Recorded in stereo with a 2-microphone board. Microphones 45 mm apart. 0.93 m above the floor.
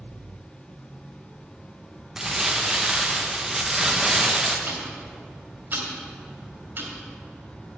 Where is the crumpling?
10° right (ahead or behind), 0.9 m.